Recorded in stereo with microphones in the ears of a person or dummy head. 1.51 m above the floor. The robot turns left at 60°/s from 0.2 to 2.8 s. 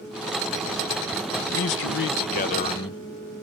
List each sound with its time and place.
1.5 s a man speaking: 110° left, 1.2 m; by 3.0 s 30° left, 1.2 m